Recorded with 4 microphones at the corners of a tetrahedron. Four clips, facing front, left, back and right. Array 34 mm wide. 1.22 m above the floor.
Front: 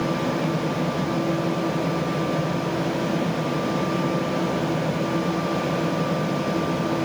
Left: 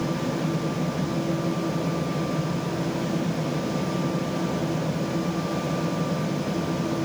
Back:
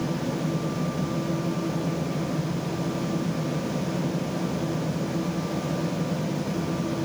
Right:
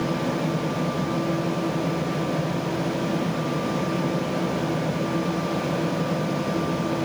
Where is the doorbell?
I don't hear a doorbell.